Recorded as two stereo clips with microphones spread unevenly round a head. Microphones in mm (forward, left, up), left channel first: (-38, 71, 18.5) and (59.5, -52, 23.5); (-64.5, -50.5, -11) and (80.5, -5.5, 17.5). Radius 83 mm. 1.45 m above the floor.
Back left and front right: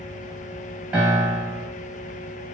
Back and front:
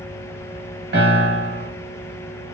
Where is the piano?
30° left, 1.1 m.